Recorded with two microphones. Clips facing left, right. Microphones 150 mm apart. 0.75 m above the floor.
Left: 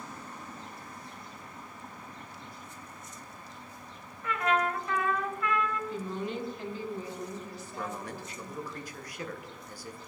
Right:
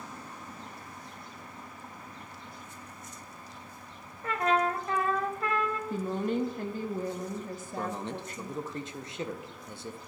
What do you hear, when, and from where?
4.2 s a trumpet: 35° right (ahead or behind), 0.7 m
5.9 s a woman speaking: 50° right (ahead or behind), 0.9 m
7.8 s a man speaking: 25° right (ahead or behind), 0.5 m